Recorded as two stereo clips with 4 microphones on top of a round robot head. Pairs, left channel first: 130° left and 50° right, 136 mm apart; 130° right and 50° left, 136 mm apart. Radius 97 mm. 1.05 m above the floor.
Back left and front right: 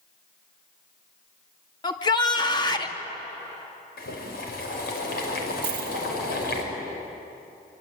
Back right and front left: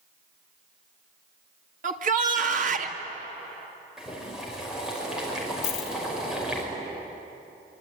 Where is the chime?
No chime in this recording.